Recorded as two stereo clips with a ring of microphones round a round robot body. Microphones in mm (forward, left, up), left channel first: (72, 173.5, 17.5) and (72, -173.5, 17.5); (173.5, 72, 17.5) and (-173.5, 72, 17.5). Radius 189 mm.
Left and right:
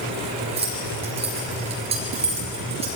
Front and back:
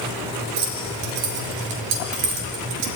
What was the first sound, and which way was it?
Keys jangling, 165° right.